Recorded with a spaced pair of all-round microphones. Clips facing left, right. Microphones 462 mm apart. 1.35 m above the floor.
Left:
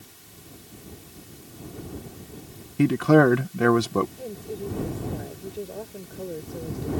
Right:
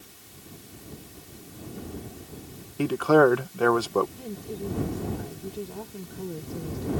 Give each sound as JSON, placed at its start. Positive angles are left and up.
{"t": 2.8, "sound": "a man speaking", "side_deg": 40}
{"t": 4.2, "sound": "a woman speaking", "side_deg": -20}